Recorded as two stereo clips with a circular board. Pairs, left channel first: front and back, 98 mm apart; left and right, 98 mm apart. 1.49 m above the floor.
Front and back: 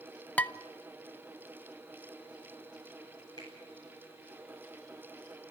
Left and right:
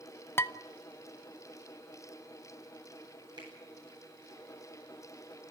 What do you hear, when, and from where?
0.4 s dishes clattering: 60° left, 0.6 m
3.4 s a finger snap: 45° right, 10 m